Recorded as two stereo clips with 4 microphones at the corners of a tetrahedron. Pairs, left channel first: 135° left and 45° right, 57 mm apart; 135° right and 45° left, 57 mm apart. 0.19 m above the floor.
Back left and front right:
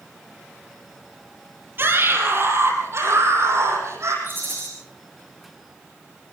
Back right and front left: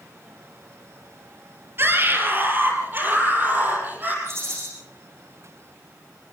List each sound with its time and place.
1.8 s a scream: straight ahead, 5 m; by 4.1 s 10° right, 8 m
4.2 s a rattle: 5° left, 10 m